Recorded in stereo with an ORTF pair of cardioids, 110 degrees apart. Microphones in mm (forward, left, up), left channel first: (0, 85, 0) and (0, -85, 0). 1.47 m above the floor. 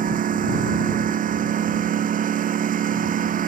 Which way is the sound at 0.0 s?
55° right.